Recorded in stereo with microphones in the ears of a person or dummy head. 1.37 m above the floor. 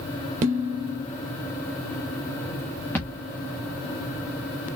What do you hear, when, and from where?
0.4 s dishes clattering: 45° right (ahead or behind), 1.4 m
3.0 s a thud: 10° left (ahead or behind), 1.1 m